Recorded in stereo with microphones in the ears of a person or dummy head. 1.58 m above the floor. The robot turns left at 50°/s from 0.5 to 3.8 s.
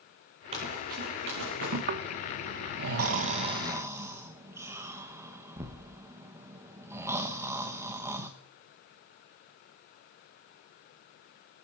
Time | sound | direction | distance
0.5 | running footsteps | 30° right (ahead or behind) | 6 m
1.9 | snoring | 55° right (ahead or behind) | 1.1 m